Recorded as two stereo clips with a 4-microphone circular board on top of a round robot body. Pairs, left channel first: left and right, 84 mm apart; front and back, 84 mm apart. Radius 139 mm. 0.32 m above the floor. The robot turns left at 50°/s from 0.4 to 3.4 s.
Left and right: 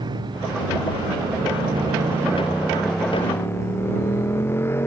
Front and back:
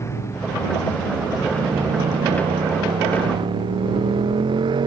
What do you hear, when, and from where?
0.0 s a motorcycle: 60° right; by 4.9 s 150° left